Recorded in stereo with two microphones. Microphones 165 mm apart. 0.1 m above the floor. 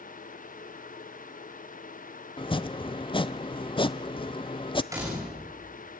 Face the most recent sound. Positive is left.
turn(degrees=-20)  # may be behind; listen again after turning